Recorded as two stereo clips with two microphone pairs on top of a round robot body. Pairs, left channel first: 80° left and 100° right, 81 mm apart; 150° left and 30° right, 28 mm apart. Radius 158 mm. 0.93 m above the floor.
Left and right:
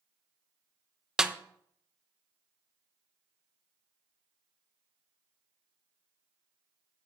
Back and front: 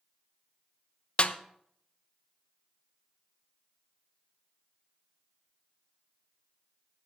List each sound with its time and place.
1.2 s a snare drum: 175° left, 1.2 m